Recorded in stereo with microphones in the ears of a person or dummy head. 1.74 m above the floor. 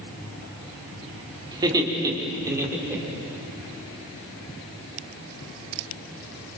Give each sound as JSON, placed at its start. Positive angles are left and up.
{"t": 1.5, "sound": "laughter", "side_deg": -25, "distance_m": 3.5}